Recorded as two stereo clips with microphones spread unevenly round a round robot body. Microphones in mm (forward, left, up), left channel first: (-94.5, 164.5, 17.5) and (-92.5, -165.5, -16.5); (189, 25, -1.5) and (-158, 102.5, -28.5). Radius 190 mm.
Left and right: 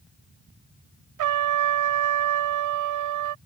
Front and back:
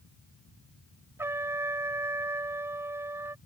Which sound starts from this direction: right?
A trumpet, at 1.2 s.